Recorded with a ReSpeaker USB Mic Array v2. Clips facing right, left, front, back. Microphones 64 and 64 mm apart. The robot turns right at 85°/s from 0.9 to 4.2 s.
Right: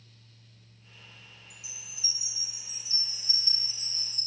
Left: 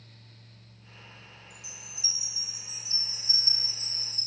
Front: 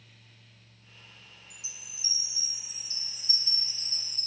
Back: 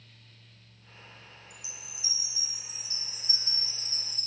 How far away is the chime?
About 2 m.